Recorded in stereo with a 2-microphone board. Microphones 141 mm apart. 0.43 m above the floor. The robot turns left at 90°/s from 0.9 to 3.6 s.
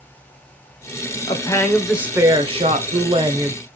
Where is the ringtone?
No ringtone in this recording.